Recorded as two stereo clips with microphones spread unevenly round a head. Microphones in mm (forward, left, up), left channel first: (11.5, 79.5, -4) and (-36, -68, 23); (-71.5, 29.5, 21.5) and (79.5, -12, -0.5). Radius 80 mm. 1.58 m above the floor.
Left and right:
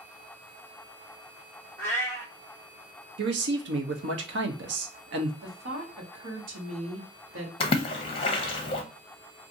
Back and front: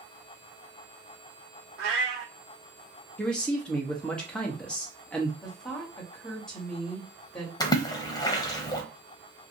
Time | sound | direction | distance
1.8 | a cat meowing | 10° right | 1.2 m
3.2 | a man speaking | 115° right | 0.8 m
5.4 | a woman speaking | 110° right | 1.3 m
7.6 | a splash | 125° left | 0.7 m